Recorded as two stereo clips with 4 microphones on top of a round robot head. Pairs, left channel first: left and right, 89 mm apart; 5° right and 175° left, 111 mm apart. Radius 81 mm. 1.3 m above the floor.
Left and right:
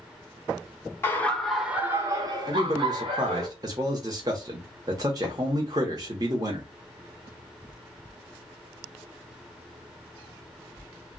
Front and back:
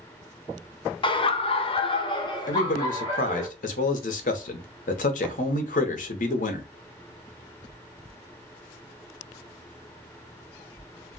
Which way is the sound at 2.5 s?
30° right.